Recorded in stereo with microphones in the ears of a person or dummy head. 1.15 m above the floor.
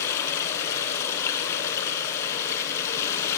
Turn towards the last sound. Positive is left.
turn(degrees=15)  # may be behind; listen again after turning